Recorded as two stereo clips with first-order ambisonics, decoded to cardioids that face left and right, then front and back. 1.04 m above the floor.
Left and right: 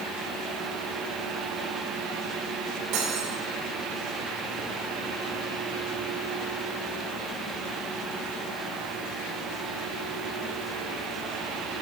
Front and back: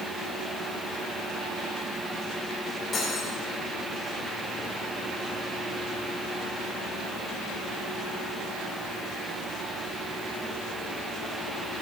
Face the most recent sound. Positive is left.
turn(degrees=-70)